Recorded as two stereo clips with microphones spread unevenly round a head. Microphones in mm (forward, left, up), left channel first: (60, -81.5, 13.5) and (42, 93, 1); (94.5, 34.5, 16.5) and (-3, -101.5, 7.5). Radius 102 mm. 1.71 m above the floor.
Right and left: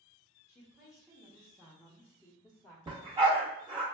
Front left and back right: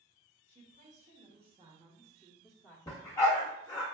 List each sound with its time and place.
0.5 s a woman speaking: 175° right, 1.2 m; by 2.8 s 20° right, 0.8 m
2.9 s a dog barking: 70° left, 1.1 m